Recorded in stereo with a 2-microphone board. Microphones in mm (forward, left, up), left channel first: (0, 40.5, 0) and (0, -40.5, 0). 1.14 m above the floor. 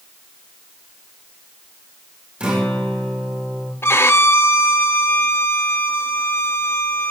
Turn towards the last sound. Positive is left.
turn(degrees=35)  # may be behind; listen again after turning